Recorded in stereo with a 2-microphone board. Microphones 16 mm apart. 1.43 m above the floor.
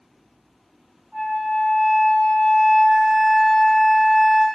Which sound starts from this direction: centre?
A flute, at 1.1 s.